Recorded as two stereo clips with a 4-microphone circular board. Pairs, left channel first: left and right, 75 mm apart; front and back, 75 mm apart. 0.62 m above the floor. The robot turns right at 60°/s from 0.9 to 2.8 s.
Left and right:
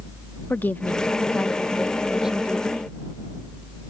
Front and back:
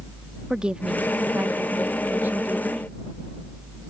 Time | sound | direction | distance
0.5 | a woman speaking | 120° left | ?